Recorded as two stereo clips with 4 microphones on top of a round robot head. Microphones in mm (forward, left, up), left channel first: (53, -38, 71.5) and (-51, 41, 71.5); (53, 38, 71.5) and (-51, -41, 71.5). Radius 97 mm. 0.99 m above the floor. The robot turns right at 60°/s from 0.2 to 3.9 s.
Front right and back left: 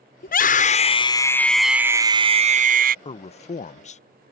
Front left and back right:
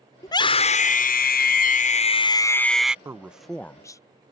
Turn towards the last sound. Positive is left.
turn(degrees=-25)